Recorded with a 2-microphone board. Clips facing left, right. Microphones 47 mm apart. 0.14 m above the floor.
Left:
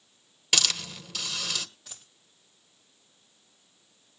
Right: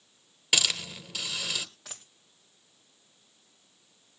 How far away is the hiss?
About 1.3 m.